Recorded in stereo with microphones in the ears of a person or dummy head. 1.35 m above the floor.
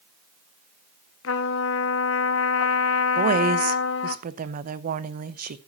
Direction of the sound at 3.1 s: 50° right (ahead or behind).